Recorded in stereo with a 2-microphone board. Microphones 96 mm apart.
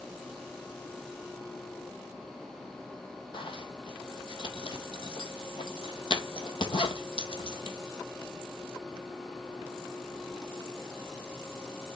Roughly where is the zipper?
Left.